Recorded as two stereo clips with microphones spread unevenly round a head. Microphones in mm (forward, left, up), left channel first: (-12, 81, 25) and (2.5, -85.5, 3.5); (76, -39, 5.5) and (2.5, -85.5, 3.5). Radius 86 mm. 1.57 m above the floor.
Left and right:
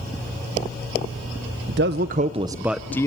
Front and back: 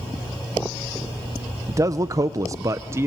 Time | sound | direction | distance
1.7 | a man speaking | 95° right | 0.7 m